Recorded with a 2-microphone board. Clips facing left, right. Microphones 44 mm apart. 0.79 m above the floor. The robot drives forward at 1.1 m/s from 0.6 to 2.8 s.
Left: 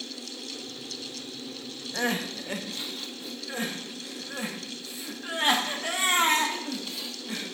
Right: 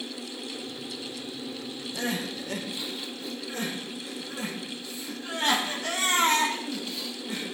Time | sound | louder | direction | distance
1.9 | crying | left 3 dB | 35° left (ahead or behind) | 0.8 m